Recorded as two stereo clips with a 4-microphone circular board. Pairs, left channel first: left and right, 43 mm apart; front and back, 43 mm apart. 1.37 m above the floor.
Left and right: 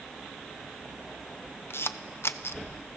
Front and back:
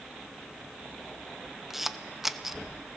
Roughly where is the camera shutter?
Left.